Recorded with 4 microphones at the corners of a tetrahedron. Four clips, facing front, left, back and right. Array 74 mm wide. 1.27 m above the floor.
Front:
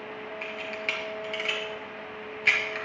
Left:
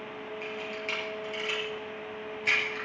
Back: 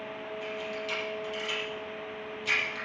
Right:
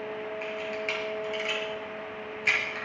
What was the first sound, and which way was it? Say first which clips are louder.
A camera shutter: right 2 dB, front 4 dB; 20° right.